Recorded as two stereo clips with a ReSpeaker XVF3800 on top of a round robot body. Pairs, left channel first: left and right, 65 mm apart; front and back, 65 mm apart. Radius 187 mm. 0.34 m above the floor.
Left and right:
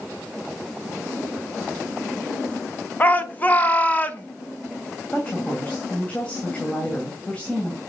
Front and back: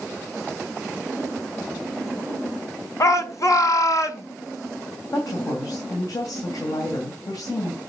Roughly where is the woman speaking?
Ahead.